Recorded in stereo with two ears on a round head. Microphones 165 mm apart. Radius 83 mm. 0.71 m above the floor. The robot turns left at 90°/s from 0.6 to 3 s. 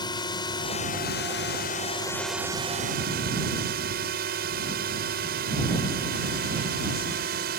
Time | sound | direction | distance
0.0 | a drone | 155° left | ?